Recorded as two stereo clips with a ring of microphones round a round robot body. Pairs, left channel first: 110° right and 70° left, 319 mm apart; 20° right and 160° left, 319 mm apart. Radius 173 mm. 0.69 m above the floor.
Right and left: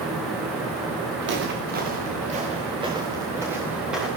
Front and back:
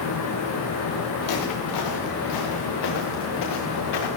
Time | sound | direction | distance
1.2 | footsteps | 10° left | 5.5 m